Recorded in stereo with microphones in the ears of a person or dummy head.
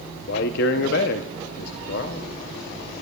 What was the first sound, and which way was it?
A man speaking, 60° left (ahead or behind).